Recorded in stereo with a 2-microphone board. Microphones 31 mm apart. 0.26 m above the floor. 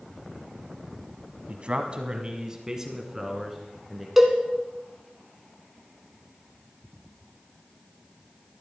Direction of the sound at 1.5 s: 45° right (ahead or behind).